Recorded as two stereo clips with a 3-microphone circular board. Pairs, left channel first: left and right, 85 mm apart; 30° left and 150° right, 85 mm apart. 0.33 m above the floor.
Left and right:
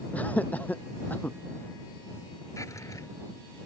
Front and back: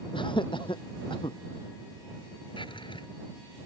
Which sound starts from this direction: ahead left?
A drawer, at 2.6 s.